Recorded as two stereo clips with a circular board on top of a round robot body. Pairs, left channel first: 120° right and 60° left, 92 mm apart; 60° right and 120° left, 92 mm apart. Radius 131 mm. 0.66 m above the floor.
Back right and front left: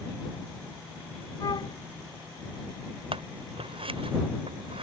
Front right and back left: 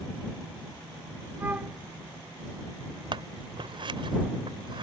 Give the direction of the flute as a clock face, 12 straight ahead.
6 o'clock.